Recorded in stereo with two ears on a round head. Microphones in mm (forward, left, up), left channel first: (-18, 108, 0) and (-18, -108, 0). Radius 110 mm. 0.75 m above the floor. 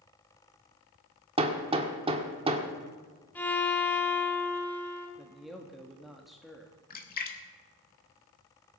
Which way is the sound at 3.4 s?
10° left (ahead or behind).